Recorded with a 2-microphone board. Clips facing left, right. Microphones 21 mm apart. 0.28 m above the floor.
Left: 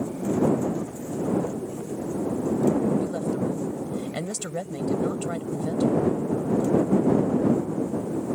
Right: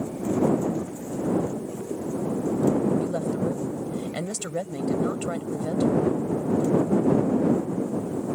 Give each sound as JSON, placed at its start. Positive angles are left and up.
{"t": 3.0, "sound": "a woman speaking", "side_deg": -25}